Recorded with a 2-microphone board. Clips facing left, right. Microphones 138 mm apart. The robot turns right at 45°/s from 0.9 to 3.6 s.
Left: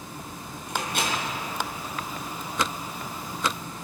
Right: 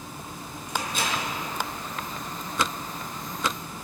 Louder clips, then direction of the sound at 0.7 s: Left 1 dB; 60° left (ahead or behind).